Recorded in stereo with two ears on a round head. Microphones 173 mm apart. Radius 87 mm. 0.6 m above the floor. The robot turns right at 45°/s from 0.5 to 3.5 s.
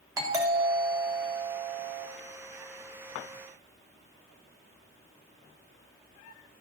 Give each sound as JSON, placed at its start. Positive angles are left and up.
{"t": 0.2, "sound": "a doorbell", "azimuth_deg": -25, "distance_m": 1.4}